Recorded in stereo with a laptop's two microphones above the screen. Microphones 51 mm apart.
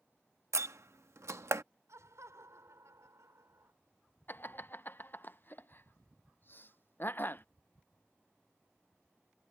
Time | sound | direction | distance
0.5 | a door slam | 70° right (ahead or behind) | ?
1.9 | laughter | 80° right | ?
4.3 | laughter | 45° left (ahead or behind) | ?